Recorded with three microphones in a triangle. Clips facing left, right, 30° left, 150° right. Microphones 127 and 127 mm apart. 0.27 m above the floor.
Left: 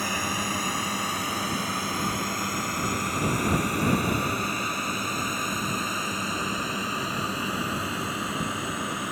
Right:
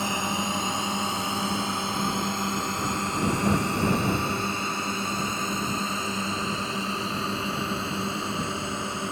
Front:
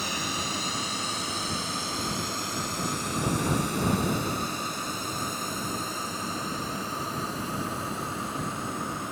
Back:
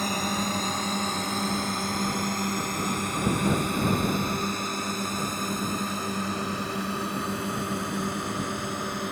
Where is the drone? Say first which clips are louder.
Right 2 dB, back 5 dB; 150° right.